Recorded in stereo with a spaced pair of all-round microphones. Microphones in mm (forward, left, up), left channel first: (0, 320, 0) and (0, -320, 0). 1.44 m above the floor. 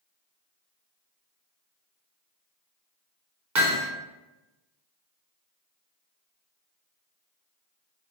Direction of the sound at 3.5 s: 30° right (ahead or behind).